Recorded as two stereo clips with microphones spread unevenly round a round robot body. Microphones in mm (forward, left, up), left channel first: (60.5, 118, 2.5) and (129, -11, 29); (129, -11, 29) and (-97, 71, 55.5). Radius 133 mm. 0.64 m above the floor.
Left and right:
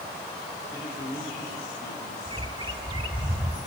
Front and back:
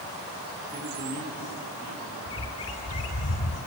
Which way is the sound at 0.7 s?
145° left.